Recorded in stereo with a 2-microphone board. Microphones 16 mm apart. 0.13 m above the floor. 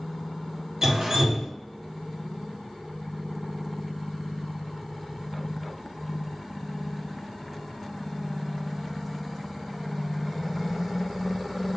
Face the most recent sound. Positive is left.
turn(degrees=-25)  # may be behind; listen again after turning